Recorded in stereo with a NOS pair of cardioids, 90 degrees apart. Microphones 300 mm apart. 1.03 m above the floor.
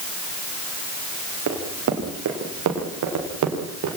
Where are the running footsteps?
60° right, 9.5 m; by 4.0 s 65° right, 8 m.